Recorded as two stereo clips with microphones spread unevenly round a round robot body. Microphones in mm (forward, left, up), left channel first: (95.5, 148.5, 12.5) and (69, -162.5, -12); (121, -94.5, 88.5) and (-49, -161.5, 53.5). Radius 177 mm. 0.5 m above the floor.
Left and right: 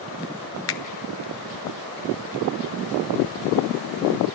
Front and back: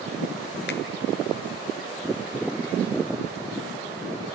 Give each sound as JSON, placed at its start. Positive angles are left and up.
{"t": 0.7, "sound": "a finger snap", "azimuth_deg": 45, "distance_m": 0.9}